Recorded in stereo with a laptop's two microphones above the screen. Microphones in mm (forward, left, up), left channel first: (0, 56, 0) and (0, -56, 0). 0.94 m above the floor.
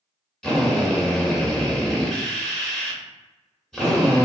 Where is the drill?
5° left (ahead or behind), 1.3 m.